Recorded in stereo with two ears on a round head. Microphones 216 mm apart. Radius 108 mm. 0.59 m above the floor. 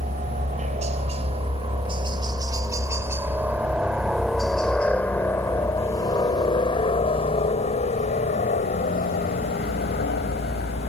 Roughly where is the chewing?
No chewing in this recording.